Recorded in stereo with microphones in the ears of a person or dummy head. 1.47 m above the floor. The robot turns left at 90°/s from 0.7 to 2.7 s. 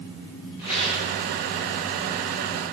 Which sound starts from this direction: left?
A rattle, at 0.6 s.